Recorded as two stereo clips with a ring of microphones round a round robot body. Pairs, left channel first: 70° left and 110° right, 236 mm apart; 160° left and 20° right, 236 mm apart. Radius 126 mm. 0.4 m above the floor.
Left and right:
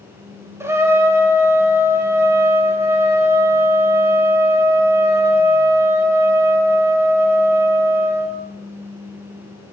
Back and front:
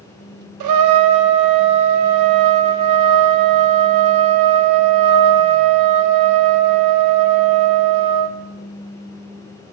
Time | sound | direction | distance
0.6 | a trumpet | 35° right | 0.6 m